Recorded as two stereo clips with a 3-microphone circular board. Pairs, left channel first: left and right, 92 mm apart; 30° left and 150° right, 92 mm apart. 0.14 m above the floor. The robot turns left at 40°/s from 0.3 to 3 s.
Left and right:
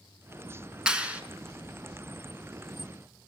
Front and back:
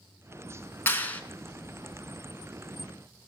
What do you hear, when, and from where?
0.9 s a clap: 15° right, 1.5 m; by 1.2 s 30° right, 1.5 m